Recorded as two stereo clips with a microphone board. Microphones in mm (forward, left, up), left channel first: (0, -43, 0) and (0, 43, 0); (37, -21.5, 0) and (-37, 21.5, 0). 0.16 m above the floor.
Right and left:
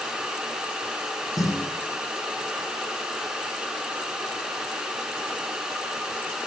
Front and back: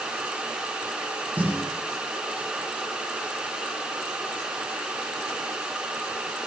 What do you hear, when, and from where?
1.4 s a snare drum: 135° right, 7.5 m